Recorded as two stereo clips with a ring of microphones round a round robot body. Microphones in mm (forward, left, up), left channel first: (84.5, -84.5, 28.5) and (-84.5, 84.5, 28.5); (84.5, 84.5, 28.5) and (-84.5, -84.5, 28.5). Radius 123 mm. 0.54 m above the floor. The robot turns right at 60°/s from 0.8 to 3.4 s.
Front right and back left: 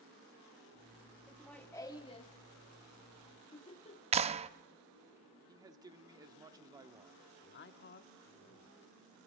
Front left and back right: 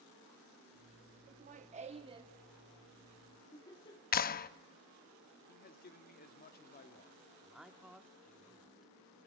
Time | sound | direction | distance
1.3 | laughter | 140° right | 0.8 m
4.1 | a clap | 80° left | 0.6 m
5.5 | a man speaking | 70° left | 1.1 m
7.4 | a man speaking | 45° right | 1.0 m